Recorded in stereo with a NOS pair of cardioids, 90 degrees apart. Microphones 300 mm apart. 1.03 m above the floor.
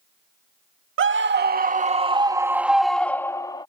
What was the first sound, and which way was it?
A scream, 45° right.